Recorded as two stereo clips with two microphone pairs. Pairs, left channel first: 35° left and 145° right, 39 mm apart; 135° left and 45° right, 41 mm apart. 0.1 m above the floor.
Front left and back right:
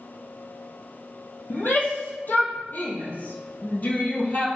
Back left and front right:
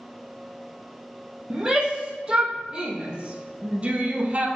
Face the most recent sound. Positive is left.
turn(degrees=5)